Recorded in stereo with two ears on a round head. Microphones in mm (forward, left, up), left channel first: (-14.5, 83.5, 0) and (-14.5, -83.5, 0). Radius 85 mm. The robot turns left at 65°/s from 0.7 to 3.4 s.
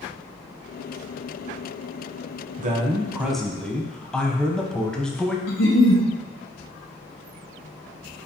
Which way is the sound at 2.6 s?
130° right.